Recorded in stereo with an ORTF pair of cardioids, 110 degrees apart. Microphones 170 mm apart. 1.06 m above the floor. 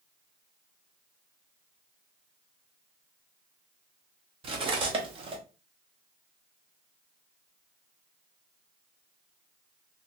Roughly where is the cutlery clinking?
Ahead right.